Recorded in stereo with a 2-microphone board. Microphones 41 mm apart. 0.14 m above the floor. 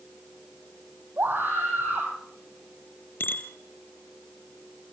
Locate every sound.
1.2 s a scream: 55° right (ahead or behind), 6.5 m
3.2 s a bicycle bell: 55° left (ahead or behind), 2.5 m